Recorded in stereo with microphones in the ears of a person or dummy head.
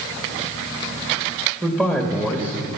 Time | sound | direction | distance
1.6 | a man speaking | 10° right (ahead or behind) | 2 m